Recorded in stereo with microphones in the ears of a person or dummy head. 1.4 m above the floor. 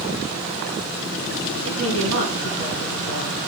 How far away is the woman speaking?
About 5 m.